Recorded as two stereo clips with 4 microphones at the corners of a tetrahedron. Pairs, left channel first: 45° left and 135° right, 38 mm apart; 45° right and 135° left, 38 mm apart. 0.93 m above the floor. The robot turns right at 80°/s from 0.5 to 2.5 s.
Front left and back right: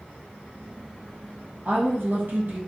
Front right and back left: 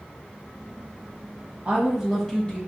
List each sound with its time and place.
1.6 s a woman speaking: 175° right, 1.0 m; by 2.6 s 105° right, 1.0 m